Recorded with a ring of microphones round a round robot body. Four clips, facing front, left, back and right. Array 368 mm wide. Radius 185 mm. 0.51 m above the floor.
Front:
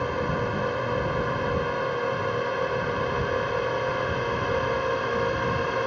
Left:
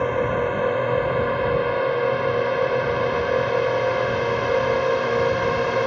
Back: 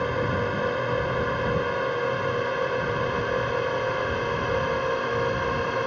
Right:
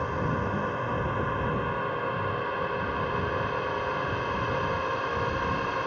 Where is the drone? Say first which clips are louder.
Left 8 dB, back 1 dB; 100° left; by 5.9 s 90° left.